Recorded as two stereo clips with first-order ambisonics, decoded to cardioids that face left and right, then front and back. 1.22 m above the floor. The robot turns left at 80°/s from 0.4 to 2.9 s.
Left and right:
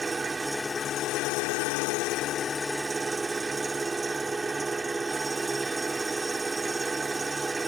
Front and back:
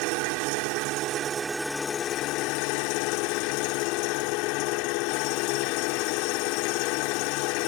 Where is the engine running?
170° right; by 7.7 s 10° right.